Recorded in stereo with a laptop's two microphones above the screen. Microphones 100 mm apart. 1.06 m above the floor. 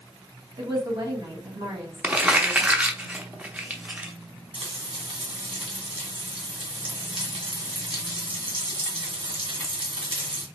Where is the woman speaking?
45° right (ahead or behind), 2 m.